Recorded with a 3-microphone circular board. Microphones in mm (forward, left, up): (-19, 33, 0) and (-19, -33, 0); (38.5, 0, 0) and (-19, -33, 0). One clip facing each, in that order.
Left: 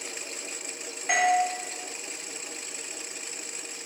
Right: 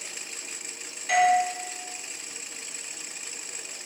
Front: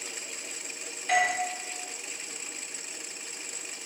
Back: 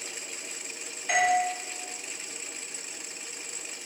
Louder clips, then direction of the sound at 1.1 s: Right 3 dB, back 2 dB; 130° left.